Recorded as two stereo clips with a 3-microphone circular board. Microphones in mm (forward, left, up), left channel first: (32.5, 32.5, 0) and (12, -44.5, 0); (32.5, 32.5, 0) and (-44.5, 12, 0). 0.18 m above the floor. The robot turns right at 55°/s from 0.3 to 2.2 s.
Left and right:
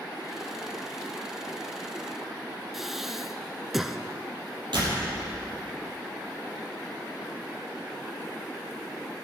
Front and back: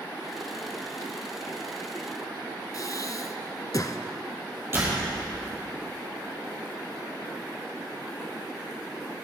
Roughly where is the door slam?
Right.